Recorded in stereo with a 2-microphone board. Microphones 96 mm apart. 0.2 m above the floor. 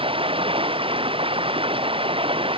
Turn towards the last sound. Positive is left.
turn(degrees=-65)  # may be behind; listen again after turning